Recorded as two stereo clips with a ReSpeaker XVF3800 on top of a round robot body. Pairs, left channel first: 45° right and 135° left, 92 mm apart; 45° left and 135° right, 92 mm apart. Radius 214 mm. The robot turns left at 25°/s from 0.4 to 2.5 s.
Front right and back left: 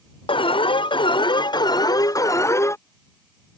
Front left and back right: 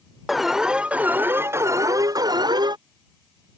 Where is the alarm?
50° right; by 2.8 s 100° right.